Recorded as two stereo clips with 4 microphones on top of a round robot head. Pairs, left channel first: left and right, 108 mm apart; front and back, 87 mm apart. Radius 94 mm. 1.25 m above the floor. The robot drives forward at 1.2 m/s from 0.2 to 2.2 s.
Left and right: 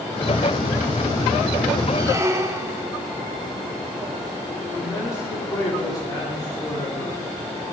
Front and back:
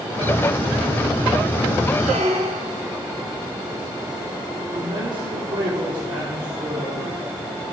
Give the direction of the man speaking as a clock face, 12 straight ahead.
7 o'clock.